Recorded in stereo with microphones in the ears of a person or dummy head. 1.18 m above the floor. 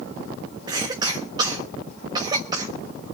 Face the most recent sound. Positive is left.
turn(degrees=-25)  # may be behind; listen again after turning